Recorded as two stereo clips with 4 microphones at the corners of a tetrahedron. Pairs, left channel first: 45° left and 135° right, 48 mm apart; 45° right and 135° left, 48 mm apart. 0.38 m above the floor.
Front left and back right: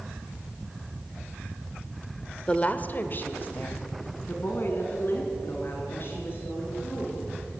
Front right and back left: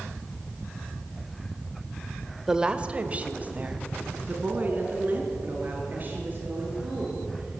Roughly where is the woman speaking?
Left.